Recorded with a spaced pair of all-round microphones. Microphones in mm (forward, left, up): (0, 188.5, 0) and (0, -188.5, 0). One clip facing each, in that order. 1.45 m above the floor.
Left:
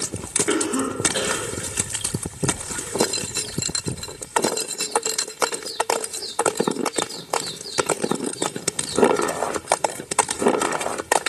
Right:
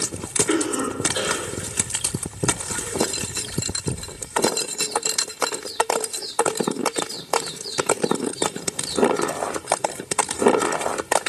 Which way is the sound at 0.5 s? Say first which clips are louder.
Left 1 dB; 75° left (ahead or behind).